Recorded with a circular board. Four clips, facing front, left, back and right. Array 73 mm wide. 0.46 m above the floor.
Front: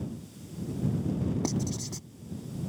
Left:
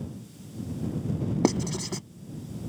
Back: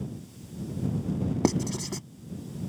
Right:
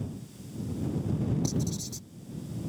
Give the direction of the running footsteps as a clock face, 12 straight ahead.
I don't hear running footsteps.